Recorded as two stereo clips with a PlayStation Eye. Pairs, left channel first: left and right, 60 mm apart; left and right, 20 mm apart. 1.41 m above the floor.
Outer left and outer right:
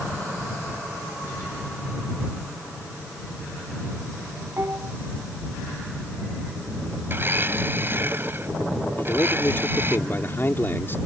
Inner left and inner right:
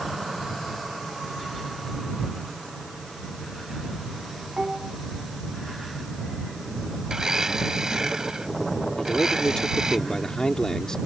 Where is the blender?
35° right (ahead or behind).